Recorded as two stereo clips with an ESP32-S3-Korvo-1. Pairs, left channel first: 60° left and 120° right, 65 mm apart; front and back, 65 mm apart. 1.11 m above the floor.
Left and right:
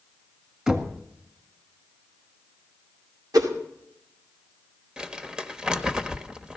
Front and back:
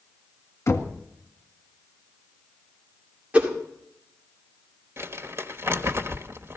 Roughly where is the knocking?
Ahead right.